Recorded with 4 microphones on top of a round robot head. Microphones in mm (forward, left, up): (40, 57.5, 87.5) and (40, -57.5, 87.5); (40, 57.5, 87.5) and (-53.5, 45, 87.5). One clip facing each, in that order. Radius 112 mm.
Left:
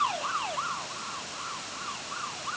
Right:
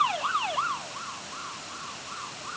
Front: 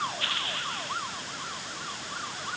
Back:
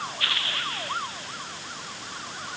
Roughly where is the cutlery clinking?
I don't hear cutlery clinking.